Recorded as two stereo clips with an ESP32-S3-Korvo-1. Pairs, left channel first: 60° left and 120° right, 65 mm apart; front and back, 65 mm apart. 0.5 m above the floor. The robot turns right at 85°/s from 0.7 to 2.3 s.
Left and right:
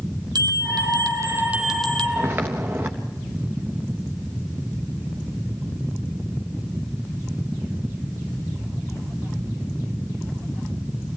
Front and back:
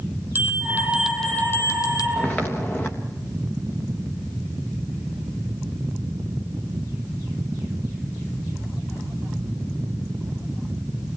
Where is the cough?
I don't hear a cough.